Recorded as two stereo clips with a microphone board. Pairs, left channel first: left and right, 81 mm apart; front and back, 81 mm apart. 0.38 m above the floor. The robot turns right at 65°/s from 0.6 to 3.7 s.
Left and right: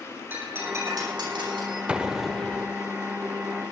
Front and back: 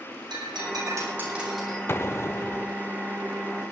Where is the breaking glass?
155° right, 10 m; by 1.8 s 75° right, 10 m.